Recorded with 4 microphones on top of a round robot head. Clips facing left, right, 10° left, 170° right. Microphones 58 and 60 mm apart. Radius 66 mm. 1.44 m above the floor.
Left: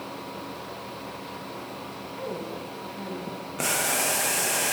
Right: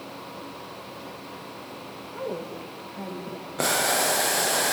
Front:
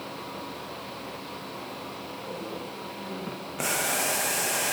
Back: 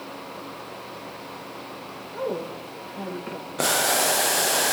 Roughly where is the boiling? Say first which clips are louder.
Right 4 dB, back 6 dB; behind right.